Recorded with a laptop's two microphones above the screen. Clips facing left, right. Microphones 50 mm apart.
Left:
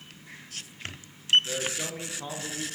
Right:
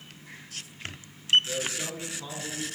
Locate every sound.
1.4 s a man speaking: 25° left (ahead or behind), 0.8 m